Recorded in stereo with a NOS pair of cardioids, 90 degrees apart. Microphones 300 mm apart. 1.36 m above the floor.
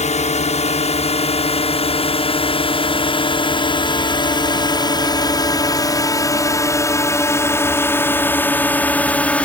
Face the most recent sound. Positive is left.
turn(degrees=5)